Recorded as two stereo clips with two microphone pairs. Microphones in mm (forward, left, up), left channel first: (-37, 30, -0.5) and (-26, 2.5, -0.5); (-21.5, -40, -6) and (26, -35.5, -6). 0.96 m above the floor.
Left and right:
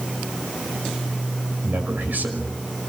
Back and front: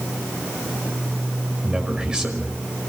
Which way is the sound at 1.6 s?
70° right.